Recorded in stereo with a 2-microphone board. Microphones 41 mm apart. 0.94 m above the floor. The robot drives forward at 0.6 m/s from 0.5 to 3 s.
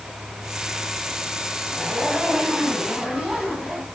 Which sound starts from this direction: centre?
A zipper, at 1.7 s.